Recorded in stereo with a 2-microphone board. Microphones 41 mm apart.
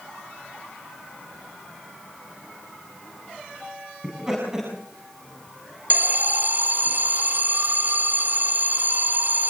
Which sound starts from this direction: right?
An alarm, at 5.9 s.